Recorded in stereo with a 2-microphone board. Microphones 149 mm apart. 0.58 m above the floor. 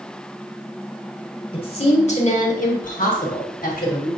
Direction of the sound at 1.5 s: 40° left (ahead or behind).